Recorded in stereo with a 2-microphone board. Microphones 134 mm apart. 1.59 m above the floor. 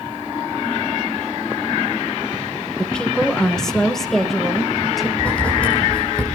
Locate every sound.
2.8 s a woman speaking: 10° left (ahead or behind), 1.3 m; by 5.1 s centre (ahead or behind), 2.5 m
5.2 s writing: 10° left (ahead or behind), 5.5 m